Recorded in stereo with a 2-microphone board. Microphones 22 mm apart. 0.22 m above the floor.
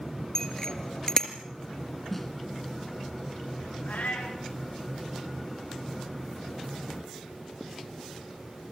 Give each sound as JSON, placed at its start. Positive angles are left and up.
{"t": 0.3, "sound": "a bicycle bell", "side_deg": 25, "distance_m": 3.0}
{"t": 2.1, "sound": "a snare drum", "side_deg": 10, "distance_m": 2.5}
{"t": 3.9, "sound": "a cat meowing", "side_deg": 80, "distance_m": 7.0}